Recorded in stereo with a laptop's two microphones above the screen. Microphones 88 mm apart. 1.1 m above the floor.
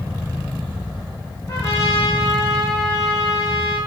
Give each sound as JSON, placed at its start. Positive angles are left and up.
{"t": 1.5, "sound": "a trumpet", "side_deg": 30, "distance_m": 2.0}